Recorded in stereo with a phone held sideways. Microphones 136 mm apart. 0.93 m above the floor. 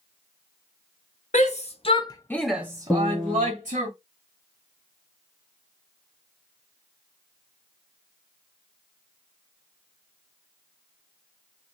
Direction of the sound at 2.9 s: Centre (ahead or behind).